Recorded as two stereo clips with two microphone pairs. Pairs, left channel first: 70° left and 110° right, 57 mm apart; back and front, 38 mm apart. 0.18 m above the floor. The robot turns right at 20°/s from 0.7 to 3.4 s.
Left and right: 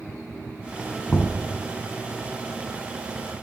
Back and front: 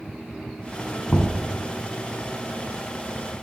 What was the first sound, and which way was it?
Knocking, 125° left.